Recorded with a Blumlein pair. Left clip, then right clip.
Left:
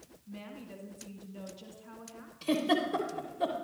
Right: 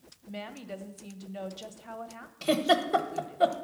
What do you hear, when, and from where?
0.3 s a woman speaking: 50° right, 0.6 m
2.4 s a giggle: 25° right, 0.7 m